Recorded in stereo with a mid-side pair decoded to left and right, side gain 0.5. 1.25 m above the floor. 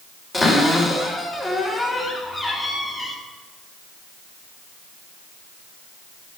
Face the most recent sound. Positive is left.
turn(degrees=15)